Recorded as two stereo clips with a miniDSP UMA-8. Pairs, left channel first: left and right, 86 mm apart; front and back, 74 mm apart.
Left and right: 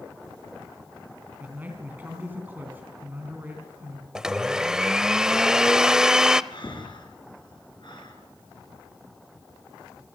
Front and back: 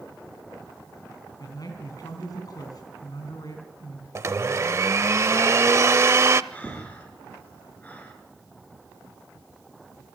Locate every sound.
1.4 s a man speaking: 25° right, 3.5 m
4.2 s a blender: 165° right, 0.6 m
6.5 s breathing: 70° left, 5 m